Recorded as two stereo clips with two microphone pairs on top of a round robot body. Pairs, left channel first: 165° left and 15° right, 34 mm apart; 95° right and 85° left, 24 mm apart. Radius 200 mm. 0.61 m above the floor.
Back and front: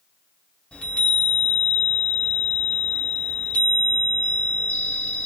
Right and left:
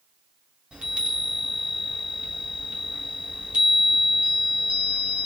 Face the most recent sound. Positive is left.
turn(degrees=120)